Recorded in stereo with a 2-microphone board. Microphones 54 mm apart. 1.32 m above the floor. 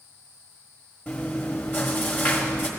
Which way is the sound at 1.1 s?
35° left (ahead or behind).